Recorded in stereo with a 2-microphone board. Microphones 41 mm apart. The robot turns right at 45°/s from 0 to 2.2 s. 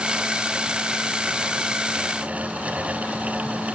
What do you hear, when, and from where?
Only background noise.